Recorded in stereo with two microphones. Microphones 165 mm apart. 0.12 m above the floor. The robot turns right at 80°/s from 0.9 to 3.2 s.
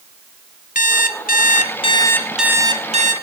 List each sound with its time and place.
0.8 s an alarm clock: 65° left, 1.5 m; by 3.1 s 115° right, 1.5 m